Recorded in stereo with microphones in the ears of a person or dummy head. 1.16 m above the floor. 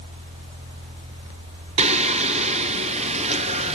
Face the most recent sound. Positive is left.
turn(degrees=-35)  # may be behind; listen again after turning